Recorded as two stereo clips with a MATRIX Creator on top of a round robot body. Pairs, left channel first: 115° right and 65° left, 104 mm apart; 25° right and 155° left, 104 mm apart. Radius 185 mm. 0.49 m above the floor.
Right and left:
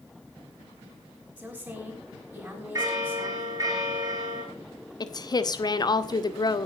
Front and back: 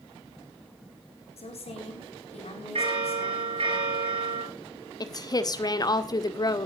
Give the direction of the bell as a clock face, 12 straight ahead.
8 o'clock.